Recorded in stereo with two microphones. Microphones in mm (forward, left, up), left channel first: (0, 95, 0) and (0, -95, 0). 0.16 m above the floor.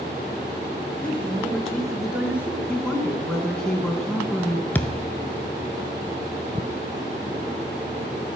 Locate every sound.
1.0 s a man speaking: 5° left (ahead or behind), 2.5 m; by 2.6 s 10° right (ahead or behind), 1.6 m
2.7 s a woman speaking: 5° left (ahead or behind), 1.3 m
4.8 s a thud: 10° left (ahead or behind), 0.5 m